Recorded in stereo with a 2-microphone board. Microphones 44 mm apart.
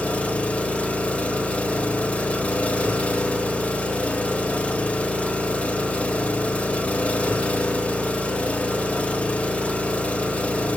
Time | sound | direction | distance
0.0 | an engine running | 30° left (ahead or behind) | 1.6 m